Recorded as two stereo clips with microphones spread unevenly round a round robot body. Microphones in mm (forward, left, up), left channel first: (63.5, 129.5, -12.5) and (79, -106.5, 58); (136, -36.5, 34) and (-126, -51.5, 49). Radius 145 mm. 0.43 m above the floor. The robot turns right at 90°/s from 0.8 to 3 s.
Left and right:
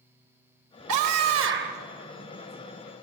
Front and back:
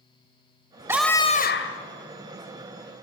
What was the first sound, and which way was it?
A scream, 95° right.